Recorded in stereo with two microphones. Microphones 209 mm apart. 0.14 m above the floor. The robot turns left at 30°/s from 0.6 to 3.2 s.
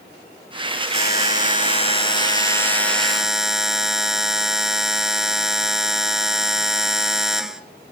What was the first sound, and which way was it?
A buzzer, 65° left.